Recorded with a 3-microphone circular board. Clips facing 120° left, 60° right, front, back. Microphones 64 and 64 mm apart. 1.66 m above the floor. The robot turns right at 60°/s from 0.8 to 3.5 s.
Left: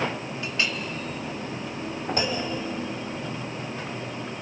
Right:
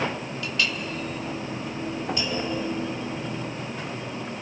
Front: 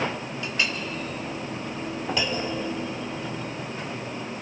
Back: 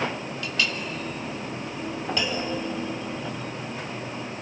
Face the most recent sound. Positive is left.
turn(degrees=165)